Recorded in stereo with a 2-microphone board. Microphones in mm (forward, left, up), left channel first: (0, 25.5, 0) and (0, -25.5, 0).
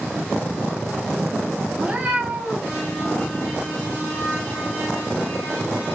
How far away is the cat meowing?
About 0.8 m.